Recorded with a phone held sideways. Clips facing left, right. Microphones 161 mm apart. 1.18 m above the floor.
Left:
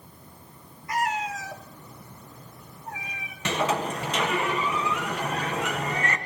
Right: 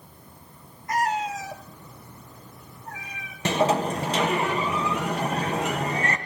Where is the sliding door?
35° right (ahead or behind), 1.5 m.